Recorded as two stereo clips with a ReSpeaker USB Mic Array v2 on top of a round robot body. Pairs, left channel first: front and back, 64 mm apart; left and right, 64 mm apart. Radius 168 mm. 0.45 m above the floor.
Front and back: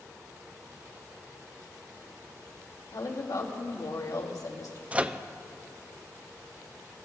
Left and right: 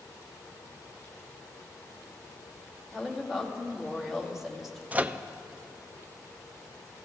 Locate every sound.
2.9 s a woman speaking: 5° right, 2 m
4.9 s a microwave: 130° right, 0.6 m